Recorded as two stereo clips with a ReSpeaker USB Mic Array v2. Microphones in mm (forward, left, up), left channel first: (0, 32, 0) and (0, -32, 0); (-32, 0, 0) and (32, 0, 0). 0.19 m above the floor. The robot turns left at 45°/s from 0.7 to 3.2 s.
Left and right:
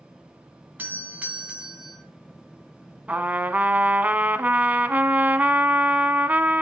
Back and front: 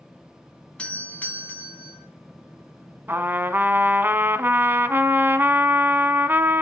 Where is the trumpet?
30° right, 1.0 m; by 6.6 s 35° right, 1.0 m.